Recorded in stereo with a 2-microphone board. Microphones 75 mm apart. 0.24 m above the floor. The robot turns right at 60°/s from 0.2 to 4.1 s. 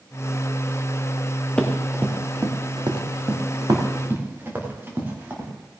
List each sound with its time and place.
1.6 s running footsteps: 15° left (ahead or behind), 1.8 m; by 5.5 s 25° right (ahead or behind), 3.5 m